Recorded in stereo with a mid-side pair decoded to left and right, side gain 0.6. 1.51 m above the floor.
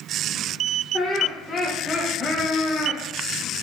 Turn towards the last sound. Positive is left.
turn(degrees=5)